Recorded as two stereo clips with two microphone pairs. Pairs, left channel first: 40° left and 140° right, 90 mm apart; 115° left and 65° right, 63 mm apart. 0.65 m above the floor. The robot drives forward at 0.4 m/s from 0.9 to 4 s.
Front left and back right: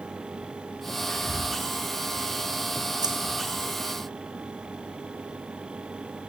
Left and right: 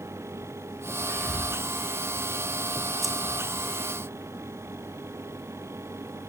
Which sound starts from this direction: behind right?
Keys jangling, at 3.0 s.